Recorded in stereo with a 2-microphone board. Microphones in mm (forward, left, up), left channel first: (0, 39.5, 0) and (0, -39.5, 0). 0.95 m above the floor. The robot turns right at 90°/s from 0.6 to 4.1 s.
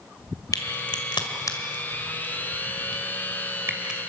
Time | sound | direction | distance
0.5 | a crack | 50° left (ahead or behind) | 2.5 m